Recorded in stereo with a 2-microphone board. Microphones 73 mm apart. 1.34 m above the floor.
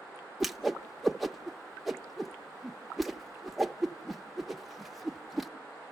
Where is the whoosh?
Centre (ahead or behind), 0.6 m.